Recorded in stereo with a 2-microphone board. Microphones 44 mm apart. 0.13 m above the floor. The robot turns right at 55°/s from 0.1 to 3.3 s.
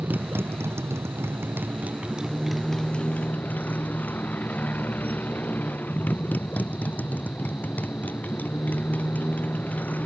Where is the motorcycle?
135° right; by 10.1 s 40° left.